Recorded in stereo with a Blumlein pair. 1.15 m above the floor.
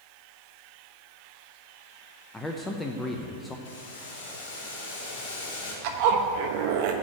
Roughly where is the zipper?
Ahead right.